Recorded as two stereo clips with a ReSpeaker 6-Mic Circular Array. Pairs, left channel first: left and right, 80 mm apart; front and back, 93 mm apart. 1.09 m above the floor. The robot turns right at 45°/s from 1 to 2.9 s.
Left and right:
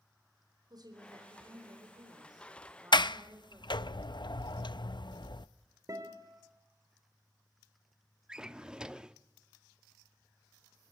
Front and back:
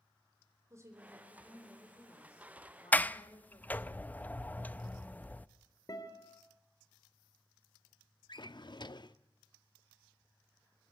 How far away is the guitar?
About 3 m.